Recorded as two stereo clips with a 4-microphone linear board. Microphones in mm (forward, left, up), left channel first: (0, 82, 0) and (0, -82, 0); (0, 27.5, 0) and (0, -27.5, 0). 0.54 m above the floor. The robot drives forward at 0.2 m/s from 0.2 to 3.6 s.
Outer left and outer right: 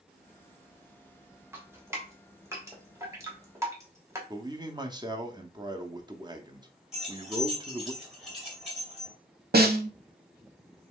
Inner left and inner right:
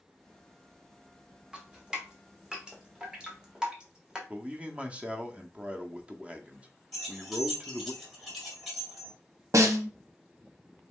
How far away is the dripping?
About 1.3 m.